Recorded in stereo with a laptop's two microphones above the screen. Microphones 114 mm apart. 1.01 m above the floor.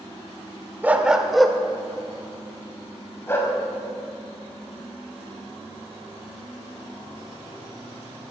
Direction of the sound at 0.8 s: 15° right (ahead or behind).